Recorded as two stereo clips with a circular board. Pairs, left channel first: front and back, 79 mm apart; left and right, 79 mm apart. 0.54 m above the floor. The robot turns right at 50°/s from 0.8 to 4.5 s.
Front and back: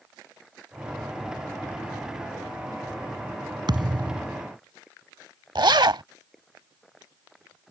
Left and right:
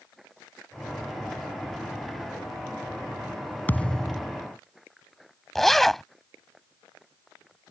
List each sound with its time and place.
3.7 s a thud: 155° left; by 4.3 s 170° right
5.5 s a zipper: 175° left